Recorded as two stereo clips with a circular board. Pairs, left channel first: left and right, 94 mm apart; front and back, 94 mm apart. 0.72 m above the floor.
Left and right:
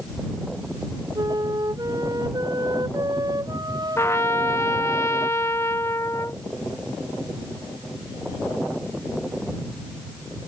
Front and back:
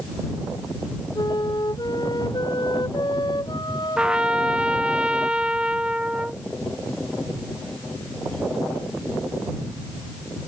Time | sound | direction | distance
1.1 | a flute | 40° right | ?
4.0 | a trumpet | 110° left | ?